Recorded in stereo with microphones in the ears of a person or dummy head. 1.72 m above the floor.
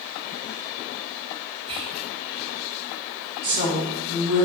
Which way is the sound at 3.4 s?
55° right (ahead or behind).